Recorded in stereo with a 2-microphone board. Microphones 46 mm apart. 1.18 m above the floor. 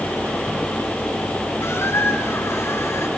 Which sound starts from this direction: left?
A squeak, at 1.6 s.